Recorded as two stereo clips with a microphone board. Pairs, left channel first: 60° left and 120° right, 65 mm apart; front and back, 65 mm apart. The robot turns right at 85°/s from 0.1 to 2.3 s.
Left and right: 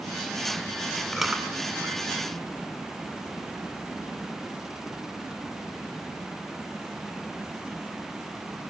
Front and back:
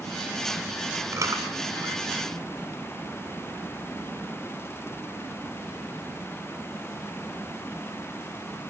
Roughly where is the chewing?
Behind left.